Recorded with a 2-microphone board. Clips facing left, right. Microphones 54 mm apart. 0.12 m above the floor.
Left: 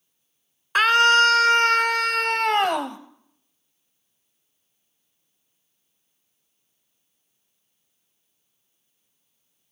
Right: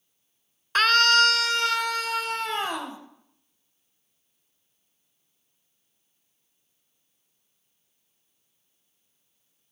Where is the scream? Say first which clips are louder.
Left 3 dB; 10° left (ahead or behind), 1.3 m; by 3.0 s 60° left (ahead or behind), 2.5 m.